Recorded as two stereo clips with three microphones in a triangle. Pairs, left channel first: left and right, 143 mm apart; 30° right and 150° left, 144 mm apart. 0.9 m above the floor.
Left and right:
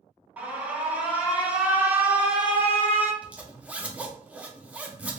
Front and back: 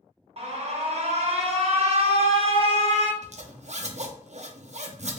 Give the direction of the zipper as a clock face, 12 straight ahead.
6 o'clock.